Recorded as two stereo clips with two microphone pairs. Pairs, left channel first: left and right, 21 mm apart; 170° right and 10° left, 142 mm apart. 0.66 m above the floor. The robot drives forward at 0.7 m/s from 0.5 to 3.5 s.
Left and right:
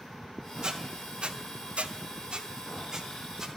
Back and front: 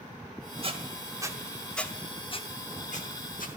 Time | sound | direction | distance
0.6 | a squeak | 35° right | 1.1 m